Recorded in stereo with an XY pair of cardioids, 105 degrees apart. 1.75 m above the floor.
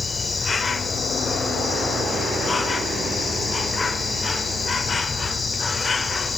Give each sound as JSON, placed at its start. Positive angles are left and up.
{"t": 0.0, "sound": "an insect", "azimuth_deg": 30, "distance_m": 0.8}